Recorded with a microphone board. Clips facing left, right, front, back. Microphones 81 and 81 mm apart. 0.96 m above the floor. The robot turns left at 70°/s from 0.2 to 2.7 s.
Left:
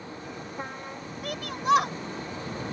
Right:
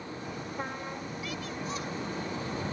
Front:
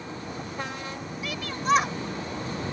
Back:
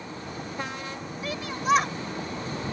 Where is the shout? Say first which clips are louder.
Left 14 dB, back 1 dB; 125° left; by 2.0 s 75° left.